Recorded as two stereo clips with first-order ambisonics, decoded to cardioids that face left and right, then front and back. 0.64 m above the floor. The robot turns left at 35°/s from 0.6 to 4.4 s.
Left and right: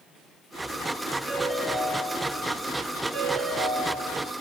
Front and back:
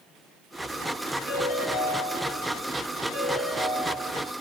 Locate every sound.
1.3 s a ringtone: 20° left, 1.8 m; by 4.3 s 85° right, 1.8 m